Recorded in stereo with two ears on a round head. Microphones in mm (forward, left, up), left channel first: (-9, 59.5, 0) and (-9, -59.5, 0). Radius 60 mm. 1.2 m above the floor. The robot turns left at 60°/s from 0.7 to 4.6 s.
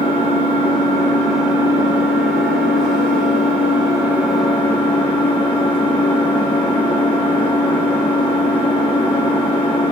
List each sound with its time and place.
0.0 s an engine running: 40° left, 0.8 m; by 9.9 s 165° left, 0.8 m